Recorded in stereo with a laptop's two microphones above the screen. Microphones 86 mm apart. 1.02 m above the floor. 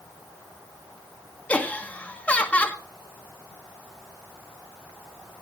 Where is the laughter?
15° left (ahead or behind), 1.4 m.